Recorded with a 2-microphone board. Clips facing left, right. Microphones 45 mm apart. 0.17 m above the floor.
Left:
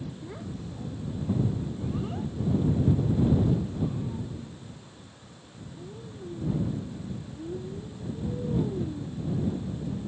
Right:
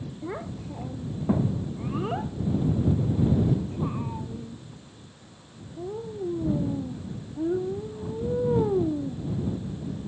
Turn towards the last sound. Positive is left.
turn(degrees=-65)  # may be behind; listen again after turning